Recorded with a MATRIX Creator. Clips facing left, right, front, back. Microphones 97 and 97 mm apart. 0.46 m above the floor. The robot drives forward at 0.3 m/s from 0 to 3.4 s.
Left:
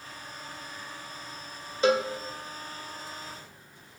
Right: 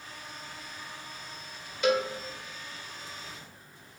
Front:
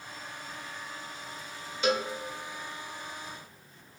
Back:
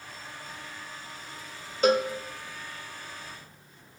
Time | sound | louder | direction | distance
1.8 | a cowbell | left 2 dB, back 6 dB | 140° left | 0.6 m